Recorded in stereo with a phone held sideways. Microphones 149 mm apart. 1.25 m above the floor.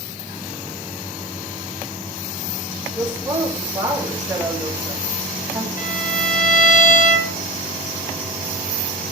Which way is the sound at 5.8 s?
85° left.